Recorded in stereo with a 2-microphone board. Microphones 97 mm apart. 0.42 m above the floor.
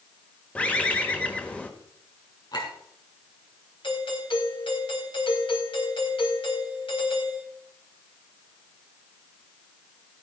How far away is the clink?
About 4 m.